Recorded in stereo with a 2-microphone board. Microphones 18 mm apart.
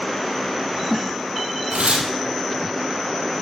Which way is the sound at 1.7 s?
90° right.